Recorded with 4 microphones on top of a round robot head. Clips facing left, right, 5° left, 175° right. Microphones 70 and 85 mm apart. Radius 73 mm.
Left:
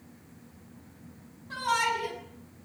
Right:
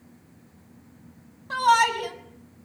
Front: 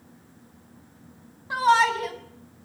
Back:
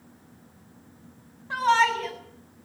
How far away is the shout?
About 7 m.